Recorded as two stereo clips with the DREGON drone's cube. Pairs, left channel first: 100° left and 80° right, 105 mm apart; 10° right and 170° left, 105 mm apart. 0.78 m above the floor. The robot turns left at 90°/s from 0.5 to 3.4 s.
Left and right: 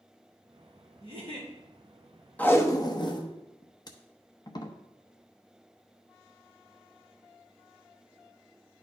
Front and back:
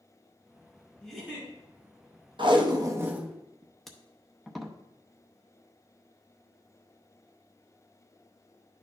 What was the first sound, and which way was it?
A giggle, 90° right.